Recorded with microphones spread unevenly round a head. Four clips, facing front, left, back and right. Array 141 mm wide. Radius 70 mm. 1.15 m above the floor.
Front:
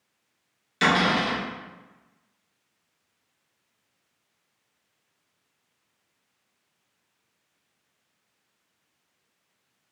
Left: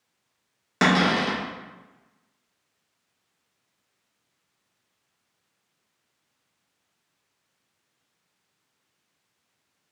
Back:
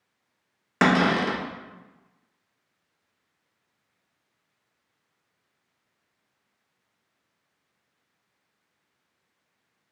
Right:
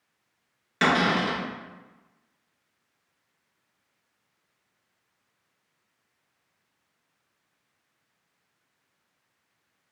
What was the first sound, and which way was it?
A cupboard door, 155° left.